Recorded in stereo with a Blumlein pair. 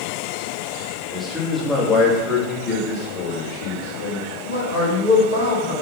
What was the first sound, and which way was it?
A man speaking, straight ahead.